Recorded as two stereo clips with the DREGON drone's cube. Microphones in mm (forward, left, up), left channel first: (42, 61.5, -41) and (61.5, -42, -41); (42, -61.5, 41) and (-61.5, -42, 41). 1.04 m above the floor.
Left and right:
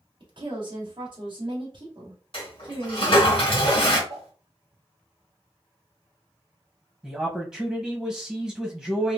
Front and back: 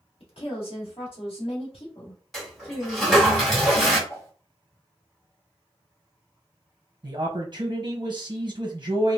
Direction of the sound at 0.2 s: 40° right.